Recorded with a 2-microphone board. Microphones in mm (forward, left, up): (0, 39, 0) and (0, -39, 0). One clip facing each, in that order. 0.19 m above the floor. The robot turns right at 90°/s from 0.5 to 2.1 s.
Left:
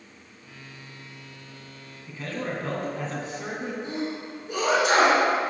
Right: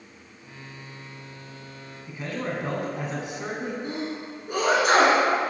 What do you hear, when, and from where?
2.1 s a man speaking: 15° right (ahead or behind), 1.3 m
3.8 s a sneeze: 50° right (ahead or behind), 2 m